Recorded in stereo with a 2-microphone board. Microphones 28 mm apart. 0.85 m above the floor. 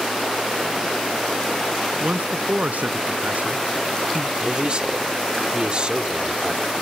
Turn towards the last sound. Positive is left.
turn(degrees=-40)  # may be behind; listen again after turning